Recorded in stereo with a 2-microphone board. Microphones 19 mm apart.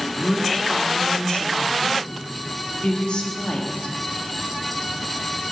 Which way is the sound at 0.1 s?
85° left.